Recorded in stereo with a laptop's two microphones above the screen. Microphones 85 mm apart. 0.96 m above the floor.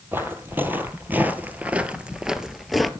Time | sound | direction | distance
0.1 | footsteps | 25° right (ahead or behind) | 1.5 m